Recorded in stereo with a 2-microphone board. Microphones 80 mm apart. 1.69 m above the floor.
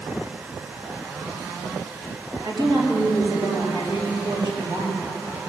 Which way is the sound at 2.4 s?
70° right (ahead or behind).